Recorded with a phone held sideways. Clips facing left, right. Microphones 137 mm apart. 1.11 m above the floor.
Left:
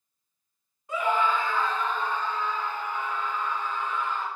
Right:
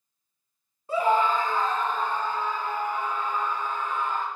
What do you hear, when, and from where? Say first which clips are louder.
0.9 s a scream: right 3 dB; 30° right (ahead or behind), 1.4 m; by 4.2 s 50° right (ahead or behind), 5 m